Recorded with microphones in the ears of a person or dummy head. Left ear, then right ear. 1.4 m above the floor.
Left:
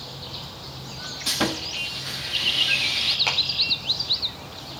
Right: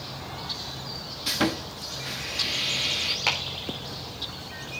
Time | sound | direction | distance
1.3 | sawing | 5° left (ahead or behind) | 1.0 m
3.3 | a clap | 5° right (ahead or behind) | 3.5 m